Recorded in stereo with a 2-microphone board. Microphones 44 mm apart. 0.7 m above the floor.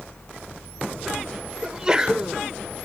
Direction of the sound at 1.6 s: 15° right (ahead or behind).